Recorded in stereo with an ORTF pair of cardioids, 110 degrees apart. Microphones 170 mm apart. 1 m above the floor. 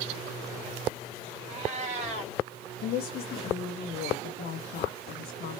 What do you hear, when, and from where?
1.5 s a cat meowing: 40° right, 2.5 m
2.8 s a woman speaking: 65° left, 1.0 m